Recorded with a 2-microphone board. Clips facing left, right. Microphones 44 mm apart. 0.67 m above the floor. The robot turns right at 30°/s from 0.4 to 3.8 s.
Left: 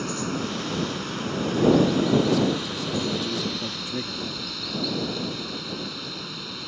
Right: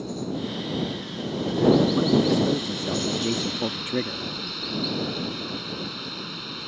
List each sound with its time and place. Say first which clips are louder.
0.0 s running water: left 2 dB; 80° left; by 6.7 s 175° right
1.9 s a man speaking: even; 135° right; by 4.2 s 80° right